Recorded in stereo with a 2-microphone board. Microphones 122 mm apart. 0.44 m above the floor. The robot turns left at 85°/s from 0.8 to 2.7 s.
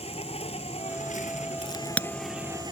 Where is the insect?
125° left; by 2.7 s 35° right.